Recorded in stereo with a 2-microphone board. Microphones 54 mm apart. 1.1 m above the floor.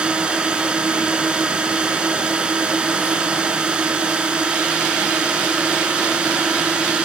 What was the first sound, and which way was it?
A drone, 20° right (ahead or behind).